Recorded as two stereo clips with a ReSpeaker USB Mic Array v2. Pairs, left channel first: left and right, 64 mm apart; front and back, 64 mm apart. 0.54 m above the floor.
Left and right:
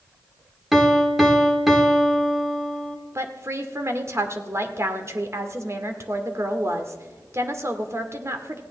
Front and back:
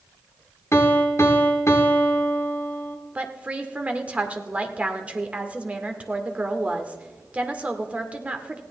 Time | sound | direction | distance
0.7 | a piano | 5° right | 1.5 m
3.1 | a woman speaking | 115° right | 1.7 m